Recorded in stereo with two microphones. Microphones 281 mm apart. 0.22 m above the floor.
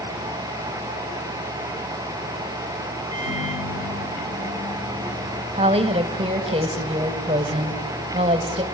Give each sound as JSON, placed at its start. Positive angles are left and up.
{"t": 3.1, "sound": "a microwave", "side_deg": 65, "distance_m": 2.5}
{"t": 5.5, "sound": "a woman speaking", "side_deg": -20, "distance_m": 1.1}